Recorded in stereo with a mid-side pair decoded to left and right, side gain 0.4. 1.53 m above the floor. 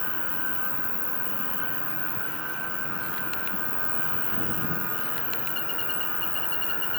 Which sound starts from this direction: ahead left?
An insect, at 0.0 s.